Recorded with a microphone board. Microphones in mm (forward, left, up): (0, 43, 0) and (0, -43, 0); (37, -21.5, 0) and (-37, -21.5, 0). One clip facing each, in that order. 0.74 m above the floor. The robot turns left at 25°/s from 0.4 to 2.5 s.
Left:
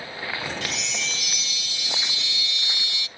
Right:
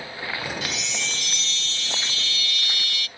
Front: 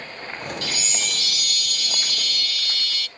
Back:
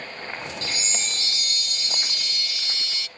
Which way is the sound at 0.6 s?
175° right.